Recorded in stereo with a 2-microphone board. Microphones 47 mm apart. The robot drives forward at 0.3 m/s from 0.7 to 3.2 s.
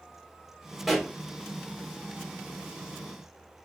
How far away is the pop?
About 0.9 m.